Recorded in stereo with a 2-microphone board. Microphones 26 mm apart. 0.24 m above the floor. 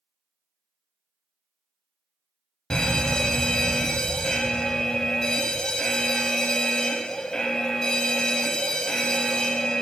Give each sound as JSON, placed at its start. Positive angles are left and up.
{"t": 2.7, "sound": "an alarm", "side_deg": 30, "distance_m": 0.7}